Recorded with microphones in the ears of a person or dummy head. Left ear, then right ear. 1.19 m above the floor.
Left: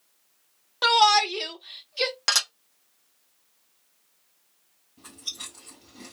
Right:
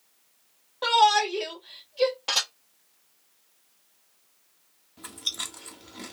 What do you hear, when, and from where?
0.8 s a shout: 60° left (ahead or behind), 0.9 m
2.3 s dishes clattering: 65° left (ahead or behind), 1.0 m
5.0 s chewing: 30° right (ahead or behind), 0.7 m